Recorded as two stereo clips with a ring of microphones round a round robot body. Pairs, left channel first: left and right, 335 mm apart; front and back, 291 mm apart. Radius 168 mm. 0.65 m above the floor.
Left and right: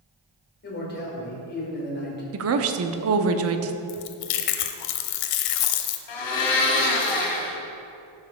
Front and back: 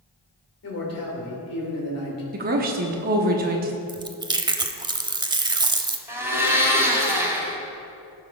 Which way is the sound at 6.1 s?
100° left.